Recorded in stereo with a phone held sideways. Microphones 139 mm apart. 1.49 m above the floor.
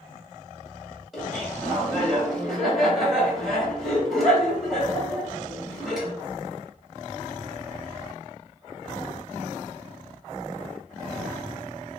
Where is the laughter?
Centre (ahead or behind), 2 m.